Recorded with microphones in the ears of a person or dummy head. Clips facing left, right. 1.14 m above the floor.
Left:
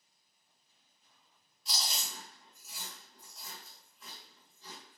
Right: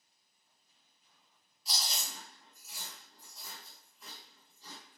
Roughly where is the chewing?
Centre.